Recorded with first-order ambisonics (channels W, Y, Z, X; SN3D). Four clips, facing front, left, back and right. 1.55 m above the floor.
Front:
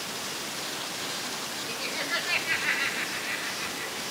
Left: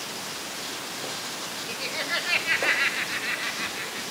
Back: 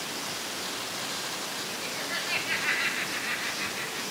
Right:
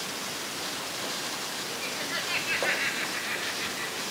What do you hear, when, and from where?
1.7 s laughter: 60° left, 2.5 m; by 4.0 s 110° left, 4.5 m